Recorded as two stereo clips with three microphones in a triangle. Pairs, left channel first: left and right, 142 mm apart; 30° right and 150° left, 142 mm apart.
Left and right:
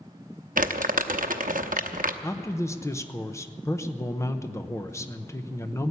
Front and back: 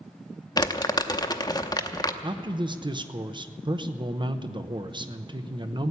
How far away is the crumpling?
About 0.8 m.